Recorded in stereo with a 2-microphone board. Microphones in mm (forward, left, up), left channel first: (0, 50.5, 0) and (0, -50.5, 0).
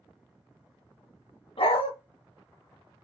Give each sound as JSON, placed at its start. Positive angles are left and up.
{"t": 1.6, "sound": "a dog barking", "side_deg": 60, "distance_m": 0.9}